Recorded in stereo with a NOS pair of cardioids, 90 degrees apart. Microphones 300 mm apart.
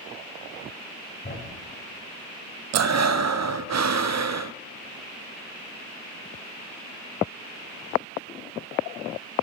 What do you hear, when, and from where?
1.2 s a thud: 35° left, 4 m
2.7 s breathing: 65° right, 0.5 m